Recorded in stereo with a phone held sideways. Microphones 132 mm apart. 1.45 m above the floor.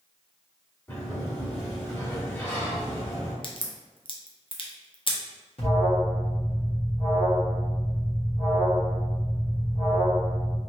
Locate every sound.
0.9 s a sliding door: 20° left (ahead or behind), 1.1 m
3.4 s a crack: 40° left (ahead or behind), 0.5 m
5.6 s an alarm: 50° left (ahead or behind), 1.0 m